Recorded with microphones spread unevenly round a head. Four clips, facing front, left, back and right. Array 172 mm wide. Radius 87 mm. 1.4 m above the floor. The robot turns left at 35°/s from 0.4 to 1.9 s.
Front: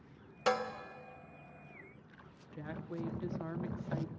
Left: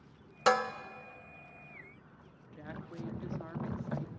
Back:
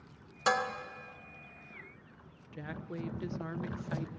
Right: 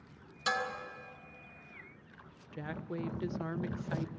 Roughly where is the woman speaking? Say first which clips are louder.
Right 5 dB, back 1 dB; right.